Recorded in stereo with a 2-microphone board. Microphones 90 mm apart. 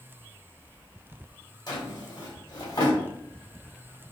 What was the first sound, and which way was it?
A drawer, 50° left (ahead or behind).